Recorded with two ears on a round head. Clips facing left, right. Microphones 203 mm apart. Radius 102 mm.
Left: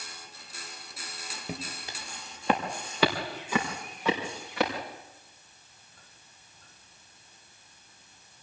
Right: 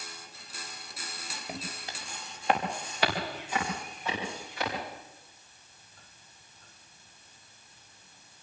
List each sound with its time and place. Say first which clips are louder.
1.5 s footsteps: left 2 dB; 85° left, 3.5 m; by 4.7 s 50° left (ahead or behind), 6.5 m